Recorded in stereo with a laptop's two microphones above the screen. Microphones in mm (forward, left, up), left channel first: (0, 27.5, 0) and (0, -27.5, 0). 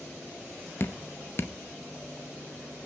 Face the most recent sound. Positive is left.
turn(degrees=45)  # may be behind; listen again after turning